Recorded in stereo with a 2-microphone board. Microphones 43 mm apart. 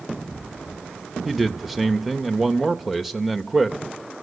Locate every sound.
1.2 s a man speaking: 5° right (ahead or behind), 0.8 m